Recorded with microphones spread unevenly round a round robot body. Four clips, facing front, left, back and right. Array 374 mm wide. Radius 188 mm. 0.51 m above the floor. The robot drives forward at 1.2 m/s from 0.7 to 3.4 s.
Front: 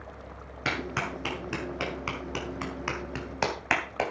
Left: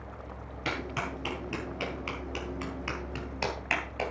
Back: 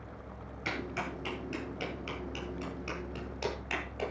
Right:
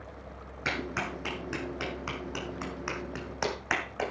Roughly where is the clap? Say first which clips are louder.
Right 1 dB, front 5 dB; ahead.